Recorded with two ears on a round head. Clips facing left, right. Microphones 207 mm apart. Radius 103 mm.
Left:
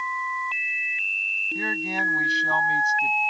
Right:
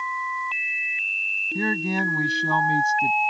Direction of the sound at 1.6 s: 85° right.